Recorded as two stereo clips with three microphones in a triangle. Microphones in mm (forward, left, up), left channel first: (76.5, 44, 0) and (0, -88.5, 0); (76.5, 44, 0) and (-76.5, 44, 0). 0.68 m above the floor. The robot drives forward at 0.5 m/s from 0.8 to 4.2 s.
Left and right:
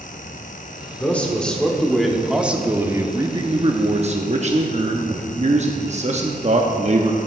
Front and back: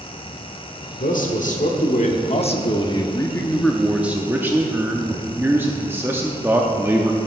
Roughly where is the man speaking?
Ahead.